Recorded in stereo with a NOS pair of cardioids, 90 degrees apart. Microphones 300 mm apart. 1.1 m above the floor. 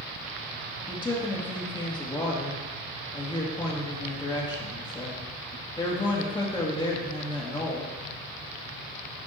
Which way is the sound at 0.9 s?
15° left.